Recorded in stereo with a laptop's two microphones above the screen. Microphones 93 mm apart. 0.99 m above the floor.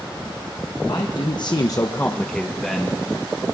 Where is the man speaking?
50° left (ahead or behind), 1.0 m; by 3.0 s 5° right (ahead or behind), 1.5 m.